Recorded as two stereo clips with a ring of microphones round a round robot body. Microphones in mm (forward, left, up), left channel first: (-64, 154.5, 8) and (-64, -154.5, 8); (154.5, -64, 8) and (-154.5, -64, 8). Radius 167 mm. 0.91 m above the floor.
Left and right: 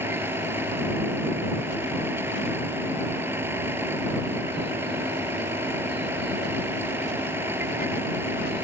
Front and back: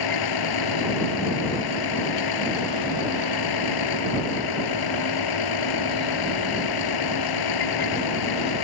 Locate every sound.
0.0 s a vehicle: 5° right